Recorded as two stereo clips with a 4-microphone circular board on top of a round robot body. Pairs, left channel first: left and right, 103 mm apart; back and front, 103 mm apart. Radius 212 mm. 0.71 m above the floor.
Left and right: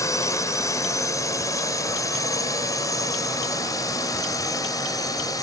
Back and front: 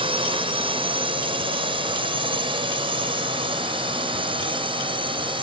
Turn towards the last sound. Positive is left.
turn(degrees=35)